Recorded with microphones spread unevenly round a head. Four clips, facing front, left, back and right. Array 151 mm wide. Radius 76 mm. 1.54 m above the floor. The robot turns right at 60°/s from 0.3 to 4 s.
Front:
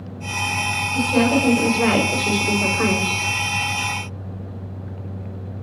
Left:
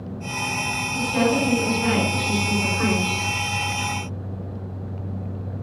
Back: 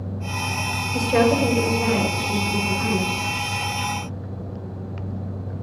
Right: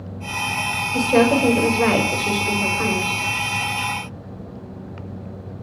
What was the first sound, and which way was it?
A woman speaking, 120° right.